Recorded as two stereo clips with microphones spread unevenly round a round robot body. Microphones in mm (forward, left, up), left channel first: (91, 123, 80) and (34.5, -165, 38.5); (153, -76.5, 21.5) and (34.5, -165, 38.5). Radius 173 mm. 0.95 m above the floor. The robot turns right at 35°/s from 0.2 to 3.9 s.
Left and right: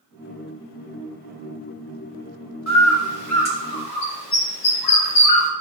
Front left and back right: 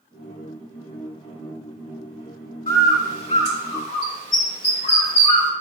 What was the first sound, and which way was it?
A bird, 45° left.